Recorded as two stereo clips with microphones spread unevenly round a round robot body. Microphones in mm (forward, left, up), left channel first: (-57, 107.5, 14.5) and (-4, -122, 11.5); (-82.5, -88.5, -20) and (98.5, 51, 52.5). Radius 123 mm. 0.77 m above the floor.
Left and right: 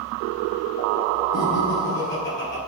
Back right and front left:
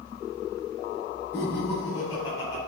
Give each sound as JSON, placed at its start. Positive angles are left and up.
{"t": 1.3, "sound": "laughter", "azimuth_deg": 140, "distance_m": 5.5}